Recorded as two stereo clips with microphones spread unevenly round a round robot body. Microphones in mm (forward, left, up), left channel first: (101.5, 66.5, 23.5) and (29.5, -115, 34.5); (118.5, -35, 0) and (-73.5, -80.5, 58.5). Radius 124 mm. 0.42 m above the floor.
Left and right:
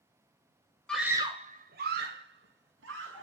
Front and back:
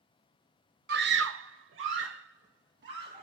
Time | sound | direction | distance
0.9 | a scream | 150° left | 1.1 m